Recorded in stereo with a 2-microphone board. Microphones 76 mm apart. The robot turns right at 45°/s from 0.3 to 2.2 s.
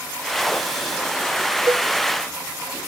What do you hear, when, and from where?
1.7 s a cowbell: 35° right (ahead or behind), 0.9 m; by 1.9 s 25° right (ahead or behind), 0.9 m